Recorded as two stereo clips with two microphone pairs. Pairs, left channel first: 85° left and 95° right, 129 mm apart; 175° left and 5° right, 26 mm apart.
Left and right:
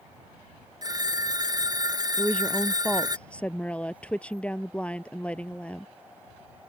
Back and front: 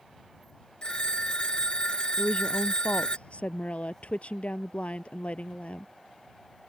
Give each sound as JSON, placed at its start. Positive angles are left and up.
{"t": 0.8, "sound": "a phone ringing", "azimuth_deg": -140}
{"t": 2.2, "sound": "a woman speaking", "azimuth_deg": 165}